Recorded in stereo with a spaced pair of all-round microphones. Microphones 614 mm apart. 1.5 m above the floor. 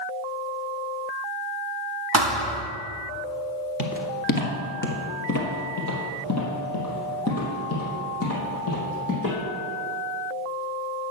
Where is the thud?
35° right (ahead or behind), 1.1 m.